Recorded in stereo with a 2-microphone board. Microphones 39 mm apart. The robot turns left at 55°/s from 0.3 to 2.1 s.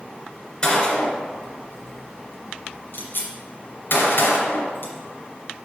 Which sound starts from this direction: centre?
A gunshot, at 0.6 s.